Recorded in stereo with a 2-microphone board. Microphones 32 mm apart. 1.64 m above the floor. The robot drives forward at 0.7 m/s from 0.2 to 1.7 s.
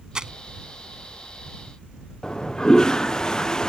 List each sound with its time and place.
0.1 s crumpling: 25° right (ahead or behind)
2.2 s a toilet flushing: 20° left (ahead or behind)